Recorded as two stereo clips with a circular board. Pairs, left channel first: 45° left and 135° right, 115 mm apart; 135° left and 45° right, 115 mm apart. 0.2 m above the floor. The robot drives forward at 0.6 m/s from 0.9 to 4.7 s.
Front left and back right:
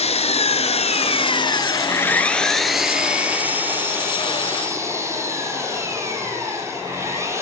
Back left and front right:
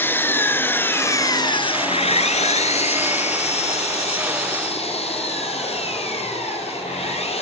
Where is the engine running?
65° left, 0.8 m; by 7.4 s 160° left, 2 m.